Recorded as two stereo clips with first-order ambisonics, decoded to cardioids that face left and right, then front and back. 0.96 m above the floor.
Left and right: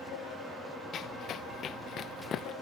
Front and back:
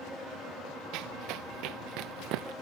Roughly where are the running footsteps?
Behind left.